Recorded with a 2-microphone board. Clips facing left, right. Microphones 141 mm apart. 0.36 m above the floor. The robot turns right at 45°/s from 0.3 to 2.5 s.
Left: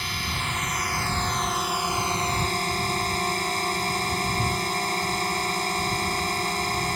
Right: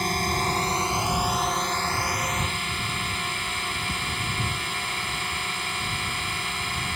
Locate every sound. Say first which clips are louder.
0.0 s a drone: right 7 dB; 55° right; by 7.0 s 45° left